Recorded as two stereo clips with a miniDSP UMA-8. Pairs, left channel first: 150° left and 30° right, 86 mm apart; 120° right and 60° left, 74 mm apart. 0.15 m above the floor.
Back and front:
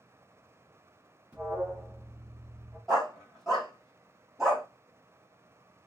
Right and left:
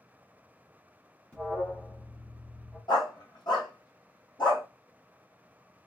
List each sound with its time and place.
1.3 s an alarm: 65° right, 1.1 m
2.9 s a dog barking: 120° right, 1.7 m